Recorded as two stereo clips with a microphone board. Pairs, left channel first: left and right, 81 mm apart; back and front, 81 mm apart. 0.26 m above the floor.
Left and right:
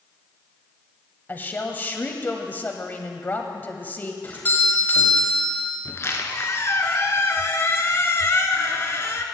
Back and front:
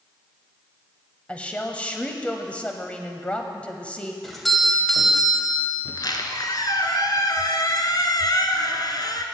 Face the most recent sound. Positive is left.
turn(degrees=145)